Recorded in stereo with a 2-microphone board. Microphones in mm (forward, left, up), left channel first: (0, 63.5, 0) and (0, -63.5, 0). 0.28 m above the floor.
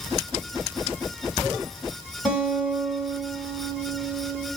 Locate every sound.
2.2 s a guitar: centre (ahead or behind), 1.7 m